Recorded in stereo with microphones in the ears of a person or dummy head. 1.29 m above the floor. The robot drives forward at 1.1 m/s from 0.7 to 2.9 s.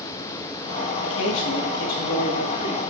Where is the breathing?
I don't hear breathing.